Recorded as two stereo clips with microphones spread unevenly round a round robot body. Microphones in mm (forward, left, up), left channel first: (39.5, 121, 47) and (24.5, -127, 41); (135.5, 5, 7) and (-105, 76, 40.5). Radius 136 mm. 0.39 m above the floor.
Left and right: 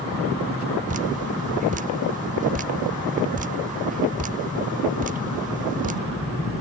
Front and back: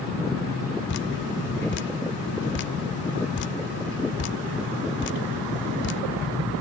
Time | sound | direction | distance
0.9 | dripping | 40° right | 0.6 m